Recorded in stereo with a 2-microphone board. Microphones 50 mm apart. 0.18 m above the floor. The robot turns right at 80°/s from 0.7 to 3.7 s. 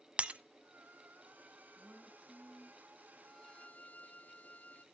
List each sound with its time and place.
0.2 s breaking glass: 25° right (ahead or behind), 0.7 m
1.8 s a woman speaking: 70° right, 1.9 m; by 2.8 s 10° left, 1.9 m
3.2 s a violin: straight ahead, 0.6 m; by 4.8 s 35° left, 0.6 m